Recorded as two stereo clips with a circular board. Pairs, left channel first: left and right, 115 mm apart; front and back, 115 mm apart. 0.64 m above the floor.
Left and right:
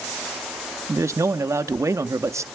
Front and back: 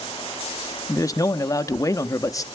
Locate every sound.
0.9 s a man speaking: 40° right, 0.7 m